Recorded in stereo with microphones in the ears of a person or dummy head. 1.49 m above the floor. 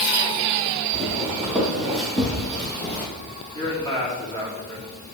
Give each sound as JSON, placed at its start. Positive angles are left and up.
{"t": 0.9, "sound": "footsteps", "side_deg": -5, "distance_m": 3.5}
{"t": 3.5, "sound": "a man speaking", "side_deg": 20, "distance_m": 4.0}